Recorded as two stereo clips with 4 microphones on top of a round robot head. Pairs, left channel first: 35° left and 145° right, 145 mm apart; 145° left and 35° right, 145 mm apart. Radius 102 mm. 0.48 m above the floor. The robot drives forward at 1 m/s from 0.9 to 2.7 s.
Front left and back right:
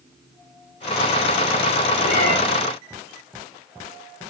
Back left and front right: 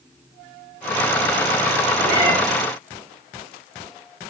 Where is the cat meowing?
30° left, 3 m; by 2.4 s 35° left, 3 m.